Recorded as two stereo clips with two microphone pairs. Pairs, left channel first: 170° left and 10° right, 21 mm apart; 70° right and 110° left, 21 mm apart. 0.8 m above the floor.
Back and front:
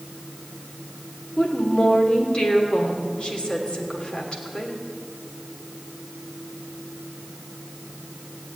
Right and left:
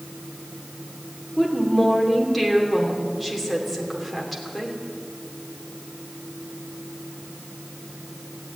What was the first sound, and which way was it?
A woman speaking, 160° right.